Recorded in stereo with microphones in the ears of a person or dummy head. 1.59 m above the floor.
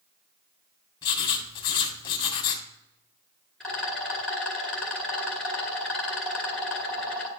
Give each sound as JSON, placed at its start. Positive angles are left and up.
{"t": 1.0, "sound": "writing", "side_deg": 20, "distance_m": 1.7}
{"t": 3.6, "sound": "a rattle", "side_deg": 0, "distance_m": 1.2}